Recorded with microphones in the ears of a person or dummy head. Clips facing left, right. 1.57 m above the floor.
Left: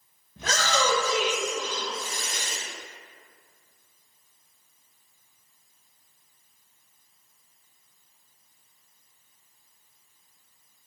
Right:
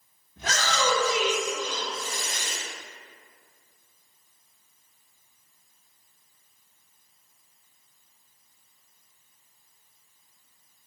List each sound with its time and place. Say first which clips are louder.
0.4 s a shout: left 2 dB; 70° left (ahead or behind), 1.0 m; by 2.6 s 35° right (ahead or behind), 1.6 m